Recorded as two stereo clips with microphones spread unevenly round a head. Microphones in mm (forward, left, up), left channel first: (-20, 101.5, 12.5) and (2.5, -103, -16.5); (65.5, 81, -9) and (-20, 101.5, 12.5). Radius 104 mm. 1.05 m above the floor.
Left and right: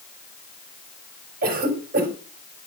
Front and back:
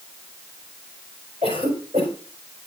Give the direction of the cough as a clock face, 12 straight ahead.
4 o'clock.